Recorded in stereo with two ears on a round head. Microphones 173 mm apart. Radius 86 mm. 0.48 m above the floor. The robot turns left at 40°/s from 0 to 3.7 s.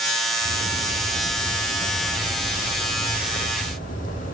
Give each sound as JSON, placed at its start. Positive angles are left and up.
{"t": 0.4, "sound": "a bird", "azimuth_deg": -95, "distance_m": 2.5}